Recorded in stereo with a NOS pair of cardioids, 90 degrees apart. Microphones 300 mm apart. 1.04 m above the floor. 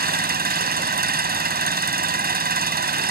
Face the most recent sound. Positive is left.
turn(degrees=-30)